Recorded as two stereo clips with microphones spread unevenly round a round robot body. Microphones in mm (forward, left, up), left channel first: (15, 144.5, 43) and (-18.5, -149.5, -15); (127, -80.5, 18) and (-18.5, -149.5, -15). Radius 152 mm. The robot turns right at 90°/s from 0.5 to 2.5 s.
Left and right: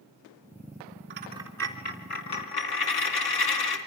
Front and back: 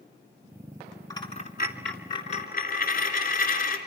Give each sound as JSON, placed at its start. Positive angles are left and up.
{"t": 1.1, "sound": "a dropped coin", "azimuth_deg": -40, "distance_m": 3.5}